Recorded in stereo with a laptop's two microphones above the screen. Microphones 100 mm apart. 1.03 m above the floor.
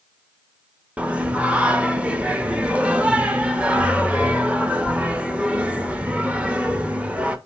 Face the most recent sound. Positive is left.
turn(degrees=-10)  # may be behind; listen again after turning